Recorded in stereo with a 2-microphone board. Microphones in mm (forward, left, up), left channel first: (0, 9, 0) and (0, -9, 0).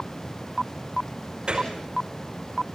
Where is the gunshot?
70° right (ahead or behind), 5.5 m.